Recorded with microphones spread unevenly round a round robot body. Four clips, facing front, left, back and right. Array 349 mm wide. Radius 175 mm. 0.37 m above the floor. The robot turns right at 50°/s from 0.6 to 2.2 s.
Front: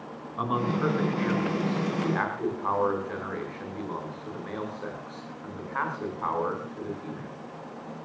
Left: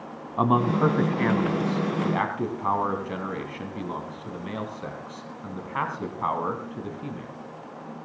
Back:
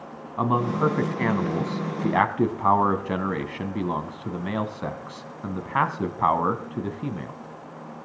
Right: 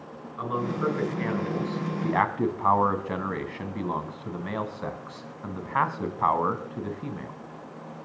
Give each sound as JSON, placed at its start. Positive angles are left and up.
{"t": 0.4, "sound": "a man speaking", "azimuth_deg": 110, "distance_m": 3.0}